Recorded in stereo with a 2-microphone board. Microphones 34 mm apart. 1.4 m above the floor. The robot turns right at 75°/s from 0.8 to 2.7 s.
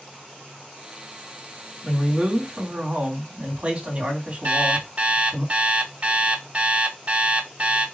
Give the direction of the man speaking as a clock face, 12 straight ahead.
7 o'clock.